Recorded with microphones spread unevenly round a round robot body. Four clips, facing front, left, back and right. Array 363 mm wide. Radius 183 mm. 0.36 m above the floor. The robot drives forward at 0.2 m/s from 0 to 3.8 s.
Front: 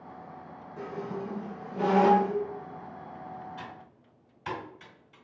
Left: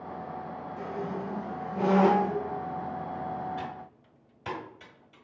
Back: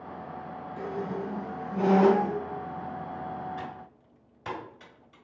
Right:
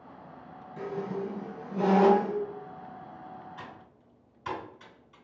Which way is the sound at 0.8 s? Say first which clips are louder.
Right 2 dB, back 2 dB; 130° right.